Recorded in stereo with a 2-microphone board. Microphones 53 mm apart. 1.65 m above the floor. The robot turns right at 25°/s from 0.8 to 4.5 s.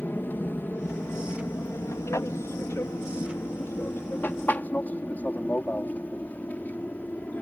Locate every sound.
0.0 s an aircraft: 40° left (ahead or behind); by 7.4 s 30° left (ahead or behind)